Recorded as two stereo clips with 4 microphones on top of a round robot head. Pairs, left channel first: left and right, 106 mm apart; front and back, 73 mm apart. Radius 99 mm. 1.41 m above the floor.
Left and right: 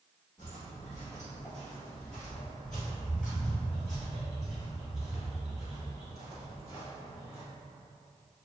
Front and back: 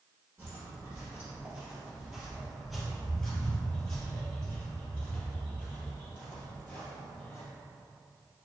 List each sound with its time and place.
0.4 s footsteps: 165° left, 1.9 m; by 7.4 s 10° right, 3 m